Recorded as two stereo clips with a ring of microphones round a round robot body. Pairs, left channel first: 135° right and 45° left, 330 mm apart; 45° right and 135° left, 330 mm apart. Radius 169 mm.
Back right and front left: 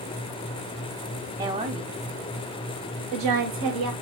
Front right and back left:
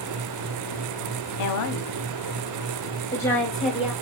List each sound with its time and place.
1.4 s a woman speaking: 35° right, 1.0 m; by 3.9 s 50° left, 1.4 m